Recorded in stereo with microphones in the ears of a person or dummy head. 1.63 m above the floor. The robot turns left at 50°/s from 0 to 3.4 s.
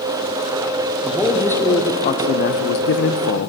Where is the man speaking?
165° right, 0.7 m; by 3.5 s 75° left, 0.7 m.